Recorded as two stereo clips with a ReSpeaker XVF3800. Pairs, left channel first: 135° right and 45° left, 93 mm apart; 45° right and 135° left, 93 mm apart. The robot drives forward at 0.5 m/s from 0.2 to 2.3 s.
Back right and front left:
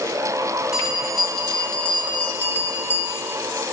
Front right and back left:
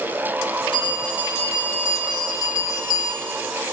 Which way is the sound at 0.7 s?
40° right.